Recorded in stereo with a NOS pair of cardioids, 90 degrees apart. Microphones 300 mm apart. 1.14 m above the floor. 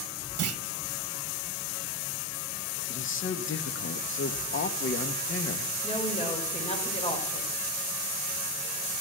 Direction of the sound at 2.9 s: 40° left.